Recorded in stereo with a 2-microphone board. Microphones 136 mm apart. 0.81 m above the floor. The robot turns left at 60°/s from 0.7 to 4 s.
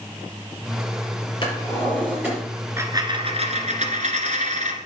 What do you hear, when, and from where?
1.4 s a drawer: 35° left, 6 m; by 2.4 s 20° right, 6 m
2.8 s a dropped coin: 20° right, 1.4 m; by 4.8 s 95° right, 1.4 m